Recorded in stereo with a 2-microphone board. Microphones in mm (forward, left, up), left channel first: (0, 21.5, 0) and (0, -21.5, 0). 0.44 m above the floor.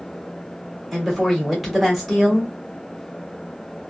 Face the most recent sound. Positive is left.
turn(degrees=0)  # may be behind; listen again after turning